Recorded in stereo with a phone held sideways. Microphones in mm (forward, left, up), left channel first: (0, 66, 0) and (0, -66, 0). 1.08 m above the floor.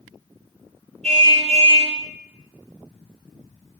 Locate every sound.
1.0 s a car horn: 55° right (ahead or behind), 9.5 m